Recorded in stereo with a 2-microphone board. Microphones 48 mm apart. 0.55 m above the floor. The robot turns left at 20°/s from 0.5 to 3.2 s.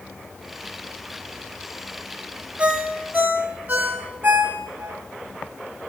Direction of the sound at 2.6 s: 30° right (ahead or behind).